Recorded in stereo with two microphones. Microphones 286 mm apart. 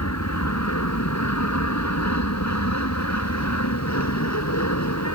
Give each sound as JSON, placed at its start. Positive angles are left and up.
{"t": 0.0, "sound": "an aircraft", "side_deg": 70}